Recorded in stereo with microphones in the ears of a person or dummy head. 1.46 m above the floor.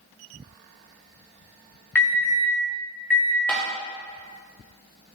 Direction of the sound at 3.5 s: 5° left (ahead or behind).